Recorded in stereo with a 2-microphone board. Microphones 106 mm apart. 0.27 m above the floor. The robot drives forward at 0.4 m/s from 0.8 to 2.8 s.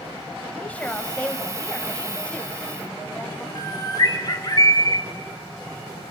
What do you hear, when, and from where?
0.6 s a woman speaking: 15° left (ahead or behind), 1.5 m; by 3.5 s 10° left (ahead or behind), 2 m
3.5 s a bird: 40° left (ahead or behind), 1.5 m